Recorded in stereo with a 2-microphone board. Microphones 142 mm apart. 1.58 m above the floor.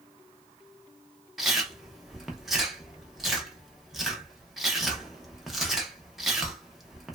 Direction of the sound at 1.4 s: Centre (ahead or behind).